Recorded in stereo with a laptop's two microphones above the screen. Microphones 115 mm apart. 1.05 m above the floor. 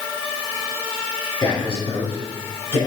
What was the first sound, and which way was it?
A man speaking, 45° left (ahead or behind).